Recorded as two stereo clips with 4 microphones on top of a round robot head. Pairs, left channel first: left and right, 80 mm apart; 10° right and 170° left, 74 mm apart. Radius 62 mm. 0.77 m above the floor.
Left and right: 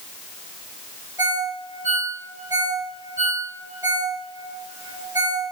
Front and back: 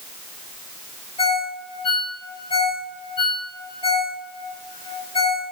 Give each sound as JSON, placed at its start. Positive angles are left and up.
{"t": 1.2, "sound": "a ringtone", "azimuth_deg": -30, "distance_m": 6.0}